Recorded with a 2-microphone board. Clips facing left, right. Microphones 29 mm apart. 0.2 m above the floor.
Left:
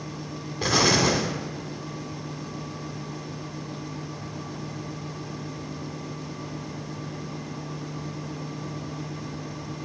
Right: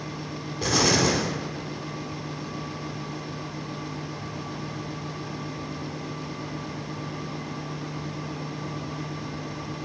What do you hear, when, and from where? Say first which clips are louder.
0.6 s an explosion: left 1 dB; 20° left (ahead or behind), 0.8 m